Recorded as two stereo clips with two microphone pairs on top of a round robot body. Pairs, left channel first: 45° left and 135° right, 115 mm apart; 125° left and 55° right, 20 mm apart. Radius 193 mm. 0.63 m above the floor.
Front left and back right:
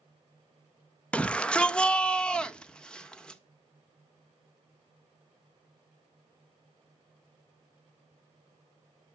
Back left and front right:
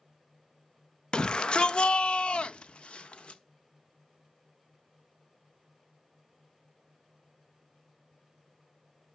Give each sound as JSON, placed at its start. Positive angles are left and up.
{"t": 1.1, "sound": "a shout", "azimuth_deg": 130, "distance_m": 0.9}